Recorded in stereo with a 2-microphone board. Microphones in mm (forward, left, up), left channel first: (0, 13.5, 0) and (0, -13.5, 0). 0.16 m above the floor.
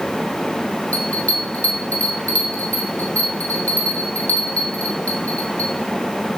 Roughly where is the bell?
Left.